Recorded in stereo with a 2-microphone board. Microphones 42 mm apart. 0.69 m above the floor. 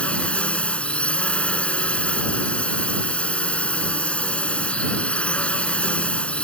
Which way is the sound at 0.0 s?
25° left (ahead or behind).